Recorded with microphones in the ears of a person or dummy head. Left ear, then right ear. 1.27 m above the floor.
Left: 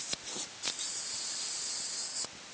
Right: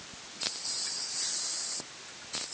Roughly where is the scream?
I don't hear a scream.